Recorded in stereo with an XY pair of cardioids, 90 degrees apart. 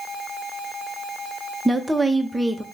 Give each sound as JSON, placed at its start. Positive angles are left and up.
{"t": 1.6, "sound": "a woman speaking", "azimuth_deg": -5, "distance_m": 0.7}